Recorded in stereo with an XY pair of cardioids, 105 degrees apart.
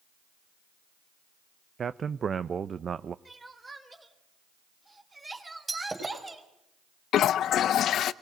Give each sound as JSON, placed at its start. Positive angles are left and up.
{"t": 1.8, "sound": "a man speaking", "azimuth_deg": -45, "distance_m": 0.6}
{"t": 3.2, "sound": "crying", "azimuth_deg": -20, "distance_m": 3.0}
{"t": 5.7, "sound": "breaking glass", "azimuth_deg": -20, "distance_m": 5.5}
{"t": 7.1, "sound": "a toilet flushing", "azimuth_deg": 70, "distance_m": 0.6}